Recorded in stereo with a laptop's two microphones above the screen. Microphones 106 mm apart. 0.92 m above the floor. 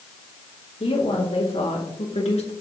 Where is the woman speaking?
70° left (ahead or behind), 3 m; by 2.5 s 75° left (ahead or behind), 1.9 m.